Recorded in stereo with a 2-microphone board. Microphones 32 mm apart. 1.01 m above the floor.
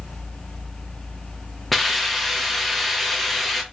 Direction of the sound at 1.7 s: Centre (ahead or behind).